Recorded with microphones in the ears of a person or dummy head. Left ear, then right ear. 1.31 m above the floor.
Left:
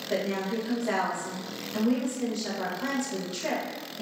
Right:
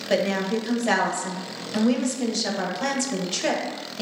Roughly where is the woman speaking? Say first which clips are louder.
Right 7 dB; right.